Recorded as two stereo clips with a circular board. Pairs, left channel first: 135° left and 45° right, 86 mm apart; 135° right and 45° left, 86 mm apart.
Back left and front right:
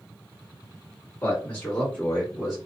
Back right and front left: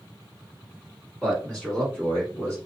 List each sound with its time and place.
1.2 s a man speaking: 140° left, 1.6 m; by 2.6 s 120° right, 1.7 m